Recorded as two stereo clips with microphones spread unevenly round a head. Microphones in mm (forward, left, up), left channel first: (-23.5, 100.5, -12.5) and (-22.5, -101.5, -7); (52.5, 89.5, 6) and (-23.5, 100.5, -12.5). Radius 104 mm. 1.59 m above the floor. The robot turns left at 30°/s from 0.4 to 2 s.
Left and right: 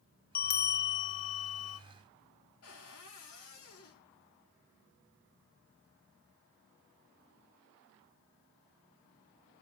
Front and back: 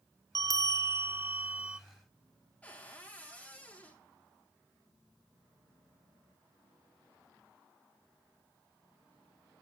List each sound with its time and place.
0.3 s a bell: 135° left, 0.7 m; by 1.8 s 95° left, 0.7 m
2.6 s a cupboard door: 65° left, 4.5 m